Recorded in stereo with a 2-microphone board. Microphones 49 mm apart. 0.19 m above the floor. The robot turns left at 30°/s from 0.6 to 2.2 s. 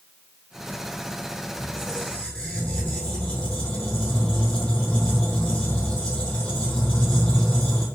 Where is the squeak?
5° right (ahead or behind), 2.5 m; by 7.9 s 15° left (ahead or behind), 2.5 m.